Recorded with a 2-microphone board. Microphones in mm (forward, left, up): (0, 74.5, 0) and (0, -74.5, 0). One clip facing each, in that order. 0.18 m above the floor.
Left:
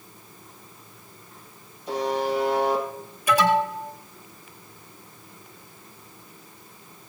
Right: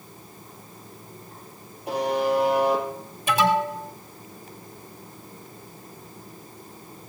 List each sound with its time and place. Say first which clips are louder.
1.9 s a buzzer: right 2 dB; 70° right (ahead or behind), 5.5 m
3.3 s an alarm: left 1 dB; 25° right (ahead or behind), 3 m